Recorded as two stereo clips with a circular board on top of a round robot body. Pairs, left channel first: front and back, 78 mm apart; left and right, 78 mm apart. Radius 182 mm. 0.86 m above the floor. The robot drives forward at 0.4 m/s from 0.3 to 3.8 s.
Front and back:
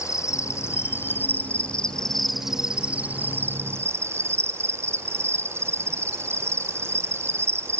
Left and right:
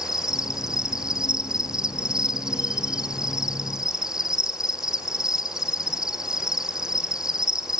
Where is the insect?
10° right, 1.3 m; by 7.8 s 165° right, 1.2 m.